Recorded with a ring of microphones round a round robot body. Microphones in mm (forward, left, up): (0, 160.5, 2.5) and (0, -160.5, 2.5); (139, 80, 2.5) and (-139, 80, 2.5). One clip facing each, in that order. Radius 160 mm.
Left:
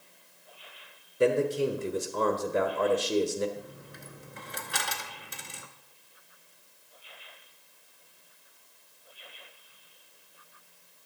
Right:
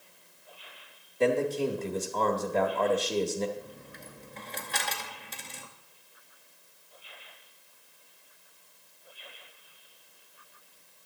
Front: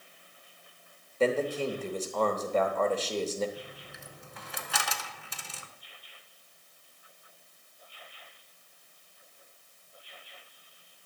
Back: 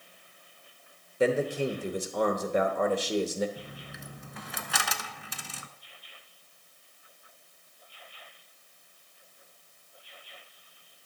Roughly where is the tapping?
No tapping in this recording.